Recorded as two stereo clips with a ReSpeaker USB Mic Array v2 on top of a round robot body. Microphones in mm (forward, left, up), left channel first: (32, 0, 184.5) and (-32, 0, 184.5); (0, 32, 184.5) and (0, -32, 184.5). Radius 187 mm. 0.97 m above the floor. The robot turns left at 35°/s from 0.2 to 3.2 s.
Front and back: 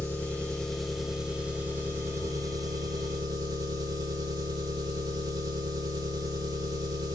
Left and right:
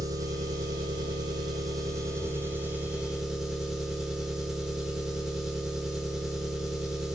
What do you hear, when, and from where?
0.0 s an engine running: 65° right, 1.0 m; by 7.2 s 170° right, 1.0 m